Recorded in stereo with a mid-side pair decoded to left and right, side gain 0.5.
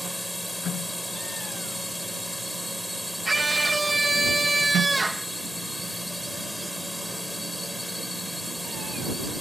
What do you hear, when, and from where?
0.0 s a drone: 5° left
3.2 s a scream: 15° right